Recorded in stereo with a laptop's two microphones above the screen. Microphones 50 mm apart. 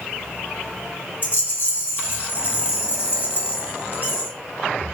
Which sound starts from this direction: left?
A rattle, at 1.2 s.